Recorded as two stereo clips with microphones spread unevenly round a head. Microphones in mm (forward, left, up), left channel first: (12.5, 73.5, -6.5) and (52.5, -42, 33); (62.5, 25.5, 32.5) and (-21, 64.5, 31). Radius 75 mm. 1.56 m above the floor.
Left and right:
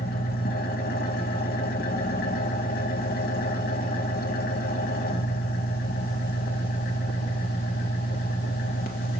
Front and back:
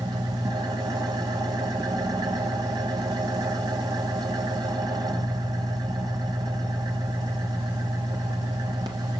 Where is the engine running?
110° left, 3 m.